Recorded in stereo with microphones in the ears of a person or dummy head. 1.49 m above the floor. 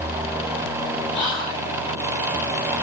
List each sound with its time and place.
1.1 s whispering: 25° left (ahead or behind), 1.6 m